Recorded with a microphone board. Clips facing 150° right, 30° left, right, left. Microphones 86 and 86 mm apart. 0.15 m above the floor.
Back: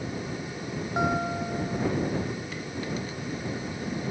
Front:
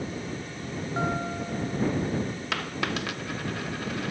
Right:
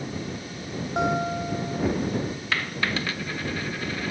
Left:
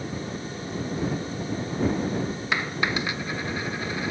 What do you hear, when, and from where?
1.0 s a guitar: 75° right
2.5 s a dropped coin: 15° left